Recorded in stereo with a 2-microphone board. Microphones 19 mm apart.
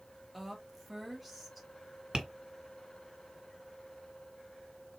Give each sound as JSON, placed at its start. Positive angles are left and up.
{"t": 0.3, "sound": "a woman speaking", "side_deg": -5, "distance_m": 1.6}
{"t": 2.1, "sound": "tapping", "side_deg": -50, "distance_m": 1.6}